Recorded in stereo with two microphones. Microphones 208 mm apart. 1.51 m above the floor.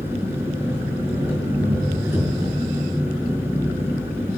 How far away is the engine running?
About 5.5 m.